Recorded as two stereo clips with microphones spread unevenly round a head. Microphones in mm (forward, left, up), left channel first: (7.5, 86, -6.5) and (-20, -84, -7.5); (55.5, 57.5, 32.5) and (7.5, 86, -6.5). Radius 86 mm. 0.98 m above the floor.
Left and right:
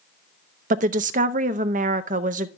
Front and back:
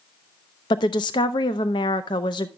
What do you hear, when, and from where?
0.7 s a woman speaking: 60° right, 0.6 m